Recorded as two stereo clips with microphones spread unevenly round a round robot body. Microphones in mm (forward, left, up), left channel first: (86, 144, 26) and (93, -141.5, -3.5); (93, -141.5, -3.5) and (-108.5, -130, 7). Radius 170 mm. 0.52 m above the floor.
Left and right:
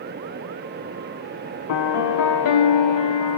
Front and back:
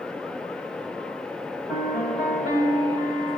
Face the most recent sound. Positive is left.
turn(degrees=80)